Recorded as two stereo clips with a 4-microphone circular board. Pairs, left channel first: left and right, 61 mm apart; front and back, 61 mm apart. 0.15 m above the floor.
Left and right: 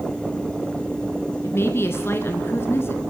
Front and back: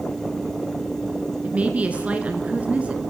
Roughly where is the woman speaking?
Behind left.